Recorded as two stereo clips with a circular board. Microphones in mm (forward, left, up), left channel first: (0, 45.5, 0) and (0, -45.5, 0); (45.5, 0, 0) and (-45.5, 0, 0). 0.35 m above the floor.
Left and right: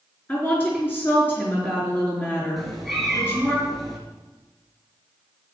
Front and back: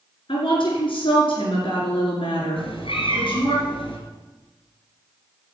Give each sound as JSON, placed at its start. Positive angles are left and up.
{"t": 0.3, "sound": "a woman speaking", "azimuth_deg": 20, "distance_m": 4.5}
{"t": 2.6, "sound": "a cat meowing", "azimuth_deg": 0, "distance_m": 2.0}